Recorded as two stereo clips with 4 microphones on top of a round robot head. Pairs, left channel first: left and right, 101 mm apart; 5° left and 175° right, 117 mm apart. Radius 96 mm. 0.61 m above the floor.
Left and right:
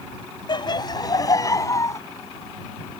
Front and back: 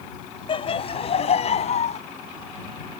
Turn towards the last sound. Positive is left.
turn(degrees=30)